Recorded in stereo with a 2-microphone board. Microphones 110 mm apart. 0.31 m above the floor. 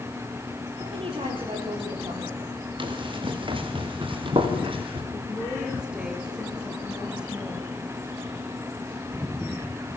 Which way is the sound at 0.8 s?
60° right (ahead or behind).